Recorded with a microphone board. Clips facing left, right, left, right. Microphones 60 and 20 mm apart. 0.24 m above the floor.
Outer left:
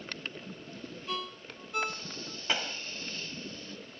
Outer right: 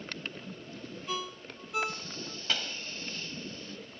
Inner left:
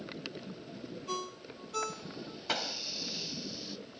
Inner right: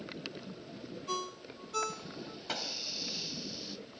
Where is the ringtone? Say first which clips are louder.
Outer right 1 dB, inner right 1 dB; 5° right (ahead or behind).